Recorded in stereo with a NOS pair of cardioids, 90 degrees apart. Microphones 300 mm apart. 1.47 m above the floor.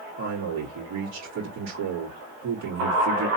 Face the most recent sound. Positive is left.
turn(degrees=-65)